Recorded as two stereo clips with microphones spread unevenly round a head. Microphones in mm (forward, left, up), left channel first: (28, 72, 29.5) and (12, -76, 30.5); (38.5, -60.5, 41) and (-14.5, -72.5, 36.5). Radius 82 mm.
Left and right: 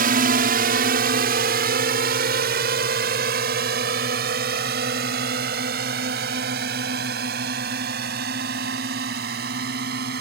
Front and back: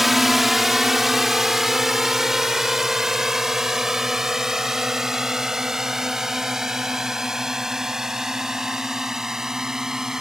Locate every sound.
0.0 s a drone: 80° right; by 10.2 s 85° right